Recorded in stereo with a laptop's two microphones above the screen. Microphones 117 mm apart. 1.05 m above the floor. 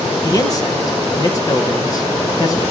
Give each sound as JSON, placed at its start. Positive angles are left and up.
{"t": 0.2, "sound": "a man speaking", "side_deg": 30, "distance_m": 1.0}